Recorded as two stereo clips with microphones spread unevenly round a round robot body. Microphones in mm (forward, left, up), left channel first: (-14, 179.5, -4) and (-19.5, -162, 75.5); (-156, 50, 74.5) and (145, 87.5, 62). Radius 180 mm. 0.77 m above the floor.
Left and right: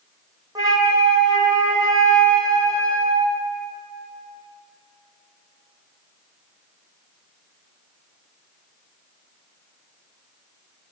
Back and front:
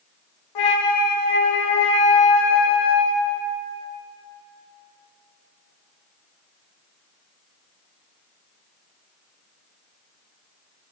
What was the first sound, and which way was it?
A flute, 170° right.